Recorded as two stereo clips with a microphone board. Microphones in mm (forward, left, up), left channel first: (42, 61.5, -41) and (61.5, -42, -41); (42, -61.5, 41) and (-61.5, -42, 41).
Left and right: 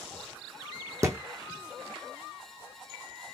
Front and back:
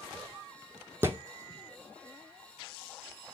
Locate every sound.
1.0 s a thud: 130° right, 0.8 m